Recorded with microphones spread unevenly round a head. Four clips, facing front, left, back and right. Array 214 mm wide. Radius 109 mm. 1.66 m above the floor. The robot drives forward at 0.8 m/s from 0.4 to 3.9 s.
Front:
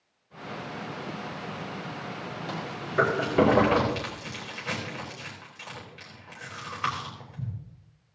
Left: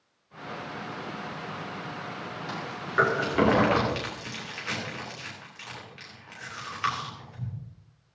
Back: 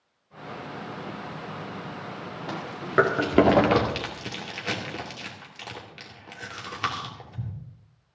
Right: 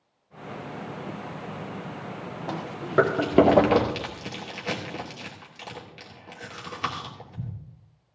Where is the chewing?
115° right, 2 m; by 7.5 s 140° right, 2.5 m.